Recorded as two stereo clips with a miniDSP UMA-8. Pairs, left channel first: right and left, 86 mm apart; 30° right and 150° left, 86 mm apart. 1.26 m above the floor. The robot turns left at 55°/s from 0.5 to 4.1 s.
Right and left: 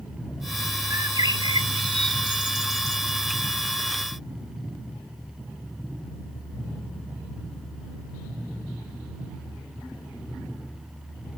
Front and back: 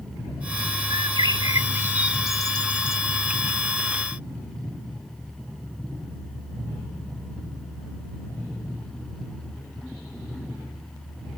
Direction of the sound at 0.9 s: 140° left.